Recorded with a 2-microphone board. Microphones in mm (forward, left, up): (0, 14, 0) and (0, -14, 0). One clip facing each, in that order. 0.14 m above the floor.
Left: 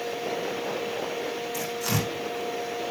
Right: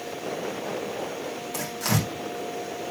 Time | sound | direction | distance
1.5 | tearing paper | 70° right (ahead or behind) | 8 m